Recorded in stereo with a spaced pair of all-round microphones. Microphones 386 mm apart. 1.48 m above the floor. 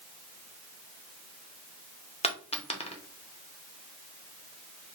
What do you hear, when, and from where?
2.2 s a dropped coin: 15° left (ahead or behind), 0.8 m